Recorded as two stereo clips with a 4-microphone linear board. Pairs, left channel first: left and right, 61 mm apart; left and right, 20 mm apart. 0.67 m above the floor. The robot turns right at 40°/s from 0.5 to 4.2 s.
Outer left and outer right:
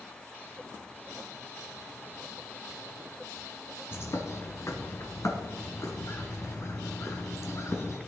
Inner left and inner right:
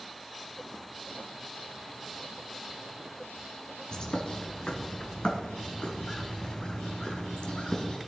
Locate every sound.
3.9 s a bird: 40° left (ahead or behind), 2.5 m; by 8.0 s 55° left (ahead or behind), 2.5 m